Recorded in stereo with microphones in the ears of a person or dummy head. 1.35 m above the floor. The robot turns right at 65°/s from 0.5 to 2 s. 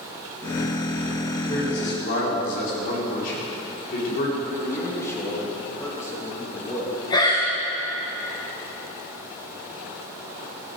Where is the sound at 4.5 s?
15° left (ahead or behind), 2.5 m.